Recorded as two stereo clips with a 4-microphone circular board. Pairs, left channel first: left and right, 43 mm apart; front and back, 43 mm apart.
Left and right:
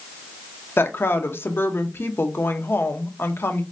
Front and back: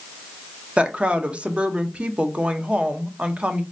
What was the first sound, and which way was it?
A woman speaking, 120° left.